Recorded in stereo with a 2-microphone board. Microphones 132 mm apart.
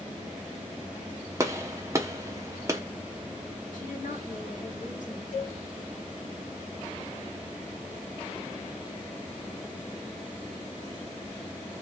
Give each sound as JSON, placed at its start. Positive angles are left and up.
{"t": 1.4, "sound": "a gunshot", "side_deg": -20, "distance_m": 0.8}
{"t": 3.7, "sound": "a woman speaking", "side_deg": 80, "distance_m": 2.0}
{"t": 5.3, "sound": "a cowbell", "side_deg": 65, "distance_m": 2.5}